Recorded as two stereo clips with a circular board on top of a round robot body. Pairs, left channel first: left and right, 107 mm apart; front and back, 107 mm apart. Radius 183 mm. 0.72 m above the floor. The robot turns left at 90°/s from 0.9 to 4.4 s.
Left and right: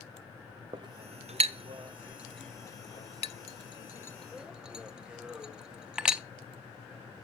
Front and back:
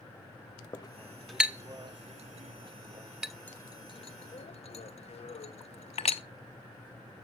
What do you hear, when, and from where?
0.7 s a clink: 50° right, 1.0 m; by 6.2 s 5° right, 1.0 m